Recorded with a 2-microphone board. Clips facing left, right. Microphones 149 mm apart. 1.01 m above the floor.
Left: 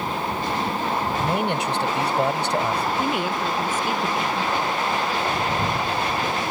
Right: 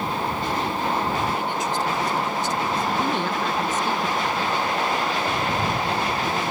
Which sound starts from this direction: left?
A man speaking, at 1.2 s.